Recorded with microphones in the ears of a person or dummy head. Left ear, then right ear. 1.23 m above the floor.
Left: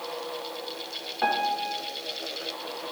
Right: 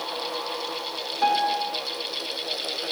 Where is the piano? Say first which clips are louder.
Right 3 dB; 5° left (ahead or behind), 1.0 m.